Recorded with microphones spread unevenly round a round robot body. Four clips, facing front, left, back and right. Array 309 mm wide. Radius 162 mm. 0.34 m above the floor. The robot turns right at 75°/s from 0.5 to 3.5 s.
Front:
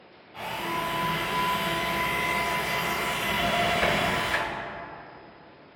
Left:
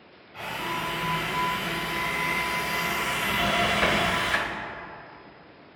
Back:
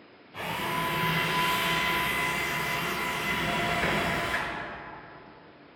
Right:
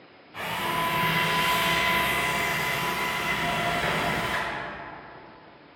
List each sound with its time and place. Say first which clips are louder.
0.3 s a drill: right 3 dB, even; straight behind, 0.8 m; by 4.5 s 45° left, 0.8 m